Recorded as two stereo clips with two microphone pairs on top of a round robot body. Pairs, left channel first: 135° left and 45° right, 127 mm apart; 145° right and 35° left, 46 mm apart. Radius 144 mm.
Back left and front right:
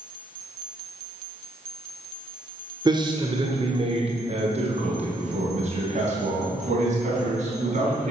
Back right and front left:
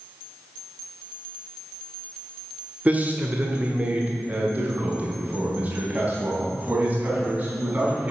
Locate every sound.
2.9 s a man speaking: 5° left, 1.4 m; by 8.1 s 20° right, 4.5 m